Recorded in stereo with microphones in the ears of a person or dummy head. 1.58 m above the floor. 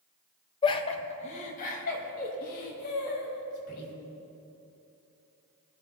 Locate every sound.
0.6 s laughter: 25° left (ahead or behind), 1.1 m; by 3.9 s 45° left (ahead or behind), 5 m